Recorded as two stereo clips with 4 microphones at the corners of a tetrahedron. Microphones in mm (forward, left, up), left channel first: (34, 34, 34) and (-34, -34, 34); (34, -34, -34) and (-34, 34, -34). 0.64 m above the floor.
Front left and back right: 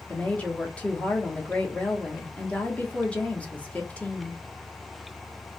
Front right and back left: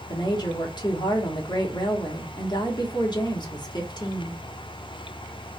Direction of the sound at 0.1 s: 30° right.